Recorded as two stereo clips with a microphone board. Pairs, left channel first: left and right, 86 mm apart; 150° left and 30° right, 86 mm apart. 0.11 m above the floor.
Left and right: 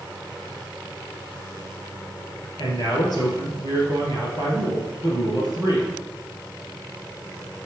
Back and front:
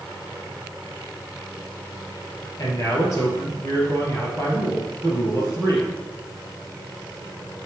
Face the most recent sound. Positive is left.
turn(degrees=105)